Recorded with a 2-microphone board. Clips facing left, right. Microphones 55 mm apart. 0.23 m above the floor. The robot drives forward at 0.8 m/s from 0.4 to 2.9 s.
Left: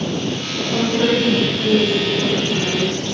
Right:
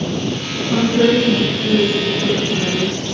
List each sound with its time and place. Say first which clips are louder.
0.7 s a woman speaking: right 4 dB; 55° right (ahead or behind), 2.5 m; by 3.0 s 35° right (ahead or behind), 3.5 m